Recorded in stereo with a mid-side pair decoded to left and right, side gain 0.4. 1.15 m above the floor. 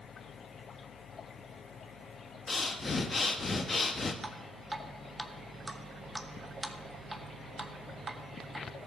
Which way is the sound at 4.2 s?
20° right.